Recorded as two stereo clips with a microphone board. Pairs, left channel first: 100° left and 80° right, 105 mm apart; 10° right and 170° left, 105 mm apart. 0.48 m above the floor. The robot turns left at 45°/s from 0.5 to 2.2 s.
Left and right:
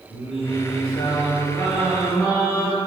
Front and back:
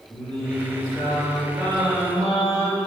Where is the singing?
80° left, 1.6 m; by 2.8 s straight ahead, 1.6 m.